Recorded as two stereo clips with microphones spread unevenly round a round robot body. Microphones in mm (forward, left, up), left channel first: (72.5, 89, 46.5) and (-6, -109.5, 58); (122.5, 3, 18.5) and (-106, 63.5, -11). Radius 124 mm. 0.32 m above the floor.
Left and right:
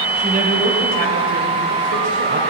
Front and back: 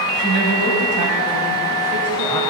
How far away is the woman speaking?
About 2.5 m.